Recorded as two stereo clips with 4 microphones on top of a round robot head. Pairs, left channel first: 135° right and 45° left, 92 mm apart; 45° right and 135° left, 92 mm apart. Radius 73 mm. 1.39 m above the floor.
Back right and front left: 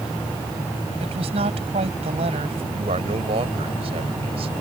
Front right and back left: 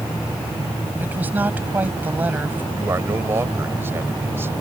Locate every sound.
1.0 s a woman speaking: 65° left
2.7 s a man speaking: 70° left